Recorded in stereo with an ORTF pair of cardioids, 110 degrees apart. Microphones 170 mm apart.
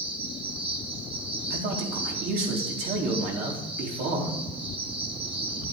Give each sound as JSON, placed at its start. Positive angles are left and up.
{"t": 0.0, "sound": "an insect", "azimuth_deg": -30, "distance_m": 3.0}
{"t": 1.5, "sound": "a man speaking", "azimuth_deg": -70, "distance_m": 4.0}